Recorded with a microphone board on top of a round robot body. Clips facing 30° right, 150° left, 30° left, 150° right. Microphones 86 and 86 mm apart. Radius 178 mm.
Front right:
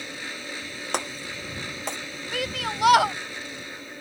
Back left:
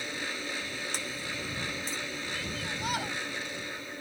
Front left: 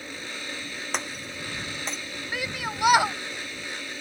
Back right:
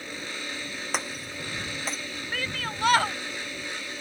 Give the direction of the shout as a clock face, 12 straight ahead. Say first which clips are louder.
Front right 7 dB, front left 2 dB; 2 o'clock.